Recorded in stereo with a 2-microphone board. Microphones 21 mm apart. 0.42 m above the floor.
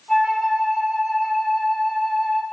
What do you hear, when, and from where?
0.1 s a flute: 20° left (ahead or behind), 2 m